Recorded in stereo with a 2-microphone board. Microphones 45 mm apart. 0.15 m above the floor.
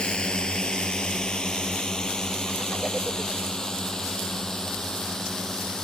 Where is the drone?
15° left (ahead or behind); by 5.8 s 10° left (ahead or behind).